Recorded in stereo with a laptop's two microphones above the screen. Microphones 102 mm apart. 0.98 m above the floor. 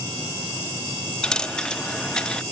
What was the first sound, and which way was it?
A dropped coin, 5° left (ahead or behind).